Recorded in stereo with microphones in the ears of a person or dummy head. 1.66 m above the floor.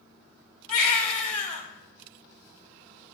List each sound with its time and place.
0.7 s a baby crying: 50° left (ahead or behind), 3 m